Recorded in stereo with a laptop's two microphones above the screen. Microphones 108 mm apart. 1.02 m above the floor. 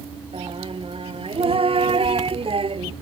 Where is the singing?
60° right (ahead or behind).